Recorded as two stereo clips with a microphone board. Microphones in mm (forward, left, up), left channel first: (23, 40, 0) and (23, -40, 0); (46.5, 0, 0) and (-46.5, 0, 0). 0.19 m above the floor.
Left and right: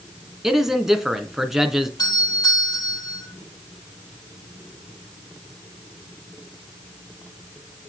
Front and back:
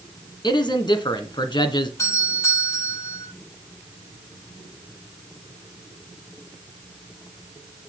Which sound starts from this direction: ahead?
A man speaking, at 0.4 s.